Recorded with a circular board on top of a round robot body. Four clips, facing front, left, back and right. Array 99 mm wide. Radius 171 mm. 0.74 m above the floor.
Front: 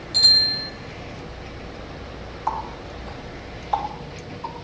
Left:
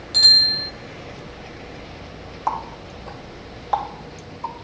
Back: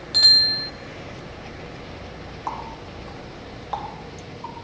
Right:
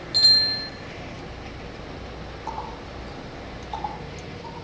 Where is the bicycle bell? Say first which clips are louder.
Left 4 dB, back 1 dB; 170° left, 2 m.